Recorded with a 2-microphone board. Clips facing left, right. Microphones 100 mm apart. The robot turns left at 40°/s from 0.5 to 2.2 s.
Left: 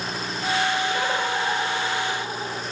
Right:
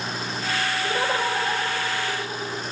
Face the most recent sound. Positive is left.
turn(degrees=155)